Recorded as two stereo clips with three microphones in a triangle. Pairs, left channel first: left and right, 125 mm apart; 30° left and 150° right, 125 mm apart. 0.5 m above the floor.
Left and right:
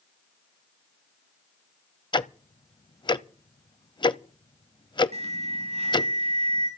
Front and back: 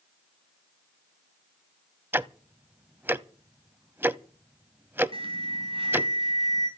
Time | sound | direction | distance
2.1 | ticking | 140° left | 0.6 m
5.1 | an alarm | 110° right | 3.5 m